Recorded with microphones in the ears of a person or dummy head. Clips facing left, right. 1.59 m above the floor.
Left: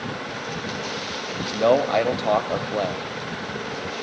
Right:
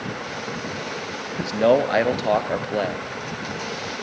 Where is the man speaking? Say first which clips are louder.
Right 1 dB; 15° right (ahead or behind), 0.6 m.